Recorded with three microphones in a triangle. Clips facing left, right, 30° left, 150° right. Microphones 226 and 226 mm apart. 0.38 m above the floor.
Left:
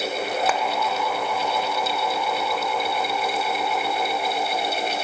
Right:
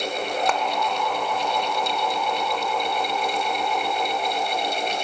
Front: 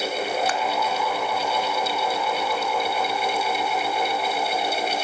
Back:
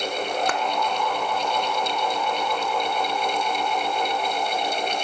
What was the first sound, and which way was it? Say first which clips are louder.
A clap: left 1 dB, even; 175° left.